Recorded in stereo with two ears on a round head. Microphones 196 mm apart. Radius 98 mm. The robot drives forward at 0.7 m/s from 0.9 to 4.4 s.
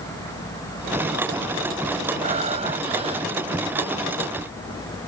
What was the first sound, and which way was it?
Breathing, 35° right (ahead or behind).